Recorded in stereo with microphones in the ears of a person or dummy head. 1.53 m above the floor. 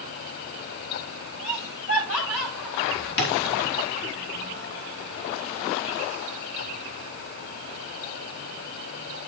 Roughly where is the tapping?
Left.